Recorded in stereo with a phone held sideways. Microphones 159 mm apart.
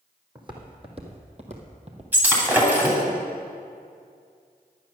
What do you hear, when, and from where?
0.3 s footsteps: 30° right (ahead or behind), 2.0 m; by 2.1 s 45° right (ahead or behind), 1.6 m
2.1 s breaking glass: 10° right (ahead or behind), 2.5 m